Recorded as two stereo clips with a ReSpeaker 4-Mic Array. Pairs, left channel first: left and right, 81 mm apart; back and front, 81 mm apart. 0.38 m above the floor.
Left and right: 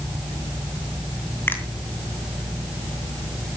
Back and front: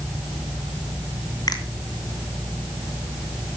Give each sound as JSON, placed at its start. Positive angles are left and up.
{"t": 1.5, "sound": "a finger snap", "azimuth_deg": 150, "distance_m": 2.0}